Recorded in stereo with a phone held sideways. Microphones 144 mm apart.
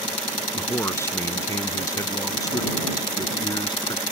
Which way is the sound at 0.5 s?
15° left (ahead or behind).